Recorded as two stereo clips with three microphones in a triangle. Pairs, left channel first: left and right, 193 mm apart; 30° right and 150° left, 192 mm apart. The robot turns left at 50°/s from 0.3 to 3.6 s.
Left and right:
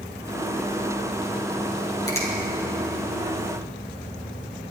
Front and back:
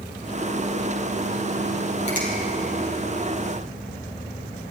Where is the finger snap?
20° left, 3.5 m; by 2.3 s 10° left, 3.5 m.